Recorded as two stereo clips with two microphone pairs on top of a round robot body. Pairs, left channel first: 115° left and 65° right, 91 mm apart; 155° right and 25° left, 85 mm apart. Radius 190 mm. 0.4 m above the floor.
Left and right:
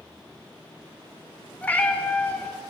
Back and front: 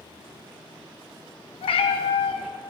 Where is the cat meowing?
175° right, 0.9 m.